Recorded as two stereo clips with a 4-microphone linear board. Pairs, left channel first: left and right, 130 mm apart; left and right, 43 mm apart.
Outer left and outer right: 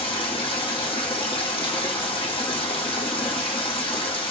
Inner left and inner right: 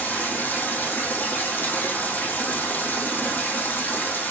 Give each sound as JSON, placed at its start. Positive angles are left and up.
{"t": 0.0, "sound": "running water", "side_deg": 40, "distance_m": 3.0}